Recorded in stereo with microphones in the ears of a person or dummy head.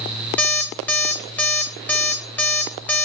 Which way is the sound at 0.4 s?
5° left (ahead or behind).